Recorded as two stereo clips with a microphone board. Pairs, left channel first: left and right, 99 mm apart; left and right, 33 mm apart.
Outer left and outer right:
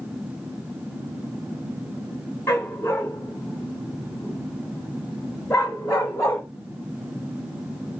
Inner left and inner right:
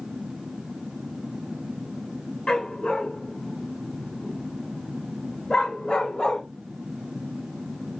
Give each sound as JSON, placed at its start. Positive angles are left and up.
{"t": 2.5, "sound": "a dog barking", "side_deg": 25, "distance_m": 7.5}